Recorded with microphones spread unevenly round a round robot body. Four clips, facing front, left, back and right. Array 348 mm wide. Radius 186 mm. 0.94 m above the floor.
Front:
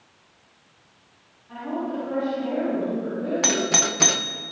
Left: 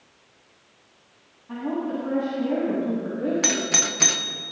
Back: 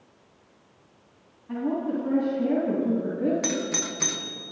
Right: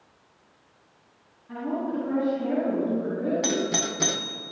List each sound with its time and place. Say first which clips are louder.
1.5 s a woman speaking: left 1 dB, back 2 dB; 160° left, 9.5 m
3.4 s a doorbell: right 1 dB, front 4 dB; 25° right, 1.2 m